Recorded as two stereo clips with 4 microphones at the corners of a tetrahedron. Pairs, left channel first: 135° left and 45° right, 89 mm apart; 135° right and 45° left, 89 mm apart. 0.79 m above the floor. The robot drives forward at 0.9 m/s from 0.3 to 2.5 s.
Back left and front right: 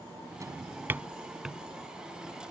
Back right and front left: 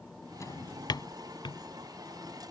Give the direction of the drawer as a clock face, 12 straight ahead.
3 o'clock.